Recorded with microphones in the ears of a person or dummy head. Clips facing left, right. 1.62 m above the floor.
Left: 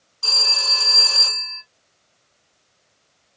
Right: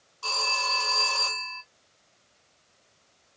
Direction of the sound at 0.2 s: 20° left (ahead or behind).